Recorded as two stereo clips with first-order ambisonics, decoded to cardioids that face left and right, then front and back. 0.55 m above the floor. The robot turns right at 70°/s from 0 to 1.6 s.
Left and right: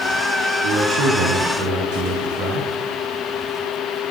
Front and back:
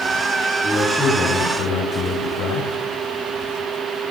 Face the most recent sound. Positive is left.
turn(degrees=-40)